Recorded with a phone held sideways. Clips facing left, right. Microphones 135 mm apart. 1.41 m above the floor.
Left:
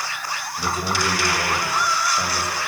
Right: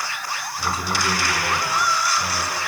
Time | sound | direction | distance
0.6 | a man speaking | 55° left (ahead or behind) | 8 m